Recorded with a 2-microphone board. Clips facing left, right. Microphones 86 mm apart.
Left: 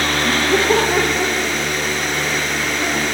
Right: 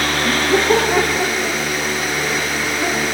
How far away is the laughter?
About 6.5 m.